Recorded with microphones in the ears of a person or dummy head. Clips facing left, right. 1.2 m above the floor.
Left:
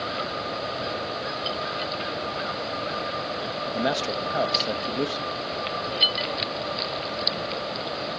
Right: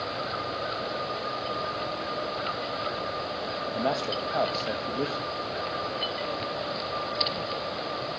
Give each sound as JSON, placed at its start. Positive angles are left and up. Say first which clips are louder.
{"t": 3.7, "sound": "a man speaking", "louder": "left 2 dB", "side_deg": 20, "distance_m": 1.5}